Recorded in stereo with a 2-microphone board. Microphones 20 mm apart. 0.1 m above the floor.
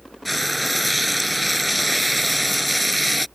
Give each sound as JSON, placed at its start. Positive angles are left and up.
{"t": 0.2, "sound": "frying", "side_deg": -5}